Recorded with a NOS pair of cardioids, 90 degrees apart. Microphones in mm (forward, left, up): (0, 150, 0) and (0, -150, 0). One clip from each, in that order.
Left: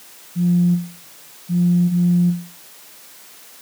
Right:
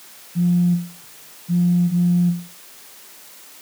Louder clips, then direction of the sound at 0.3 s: Left 1 dB; 45° right.